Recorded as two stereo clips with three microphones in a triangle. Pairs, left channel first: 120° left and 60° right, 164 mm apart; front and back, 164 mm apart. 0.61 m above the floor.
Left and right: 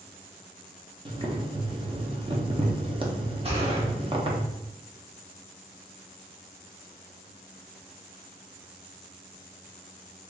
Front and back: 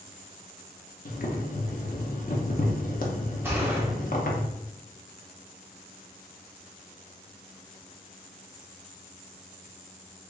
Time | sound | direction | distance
1.1 | boiling | 5° right | 0.8 m
3.4 | a gunshot | 105° right | 1.0 m